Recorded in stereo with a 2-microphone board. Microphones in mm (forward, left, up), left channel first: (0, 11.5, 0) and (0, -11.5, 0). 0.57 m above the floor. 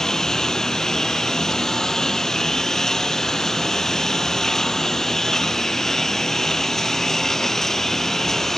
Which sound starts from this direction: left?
A lawn mower, at 0.0 s.